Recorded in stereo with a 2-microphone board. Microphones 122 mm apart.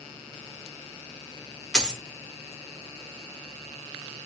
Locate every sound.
1.7 s a dropped coin: 5° left (ahead or behind), 0.9 m